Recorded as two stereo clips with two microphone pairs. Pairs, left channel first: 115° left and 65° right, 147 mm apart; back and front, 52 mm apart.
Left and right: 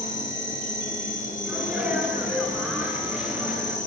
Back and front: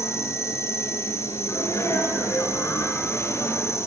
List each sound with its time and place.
0.0 s an insect: 150° left, 6.5 m
1.4 s a sneeze: 150° right, 10 m